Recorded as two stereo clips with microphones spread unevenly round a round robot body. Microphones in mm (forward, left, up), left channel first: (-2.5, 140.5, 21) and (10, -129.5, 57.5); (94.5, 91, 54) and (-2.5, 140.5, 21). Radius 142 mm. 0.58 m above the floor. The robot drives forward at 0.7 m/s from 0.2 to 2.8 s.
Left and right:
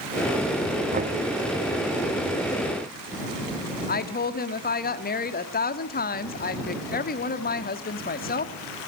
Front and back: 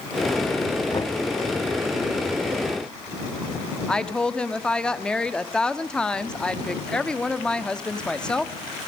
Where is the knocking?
55° right, 0.9 m; by 1.2 s 85° right, 0.9 m.